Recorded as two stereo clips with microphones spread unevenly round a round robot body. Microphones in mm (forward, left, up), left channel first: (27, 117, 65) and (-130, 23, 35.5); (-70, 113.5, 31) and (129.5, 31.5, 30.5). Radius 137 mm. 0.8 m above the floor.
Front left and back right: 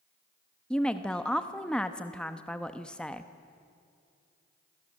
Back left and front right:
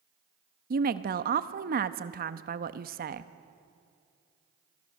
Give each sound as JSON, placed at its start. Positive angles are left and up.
{"t": 0.7, "sound": "a woman speaking", "azimuth_deg": -60, "distance_m": 0.9}